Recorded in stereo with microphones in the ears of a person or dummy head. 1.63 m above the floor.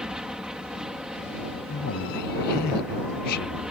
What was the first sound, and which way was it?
An aircraft, 5° right (ahead or behind).